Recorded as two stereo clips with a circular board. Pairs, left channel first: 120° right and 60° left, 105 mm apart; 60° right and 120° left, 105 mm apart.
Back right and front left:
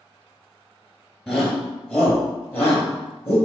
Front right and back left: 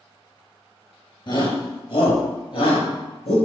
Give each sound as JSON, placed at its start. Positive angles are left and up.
{"t": 1.3, "sound": "a shout", "azimuth_deg": -35, "distance_m": 2.5}